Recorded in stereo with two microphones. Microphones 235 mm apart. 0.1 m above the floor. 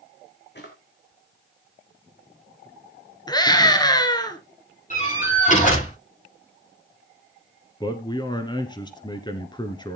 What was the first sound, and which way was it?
A drawer, 50° left (ahead or behind).